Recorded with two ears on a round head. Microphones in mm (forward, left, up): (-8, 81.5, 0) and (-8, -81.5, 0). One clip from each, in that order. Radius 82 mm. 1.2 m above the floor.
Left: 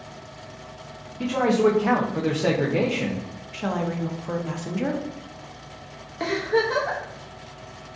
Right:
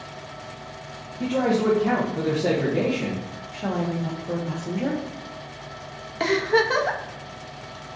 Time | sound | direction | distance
1.2 | a man speaking | 65° left (ahead or behind) | 0.6 m
3.5 | a woman speaking | 25° left (ahead or behind) | 0.6 m
6.2 | a giggle | 30° right (ahead or behind) | 0.6 m